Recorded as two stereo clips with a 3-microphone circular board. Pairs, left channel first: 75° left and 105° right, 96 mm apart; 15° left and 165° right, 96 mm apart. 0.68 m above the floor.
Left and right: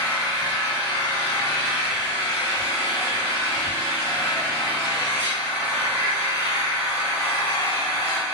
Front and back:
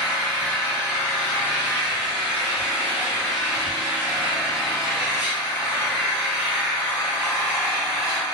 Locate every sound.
0.0 s an engine running: 125° left, 1.8 m